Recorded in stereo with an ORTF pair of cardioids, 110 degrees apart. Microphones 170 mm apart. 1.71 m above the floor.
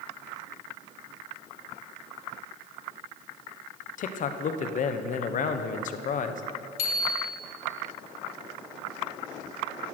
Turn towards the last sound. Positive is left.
turn(degrees=65)